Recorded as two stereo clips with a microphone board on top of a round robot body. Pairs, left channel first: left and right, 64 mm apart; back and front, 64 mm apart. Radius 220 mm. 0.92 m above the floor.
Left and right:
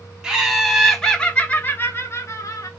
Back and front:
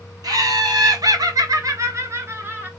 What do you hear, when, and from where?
0.2 s laughter: 10° right, 1.4 m; by 2.7 s 60° left, 1.4 m